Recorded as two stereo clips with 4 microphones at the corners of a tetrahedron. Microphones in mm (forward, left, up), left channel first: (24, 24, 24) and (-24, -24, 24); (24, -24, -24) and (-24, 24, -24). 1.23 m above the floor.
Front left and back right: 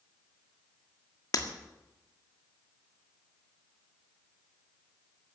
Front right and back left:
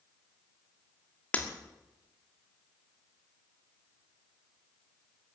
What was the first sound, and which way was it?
Breaking glass, 25° left.